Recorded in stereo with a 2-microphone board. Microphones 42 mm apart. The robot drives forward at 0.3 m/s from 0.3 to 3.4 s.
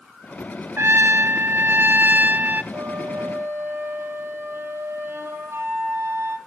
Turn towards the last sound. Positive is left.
turn(degrees=-80)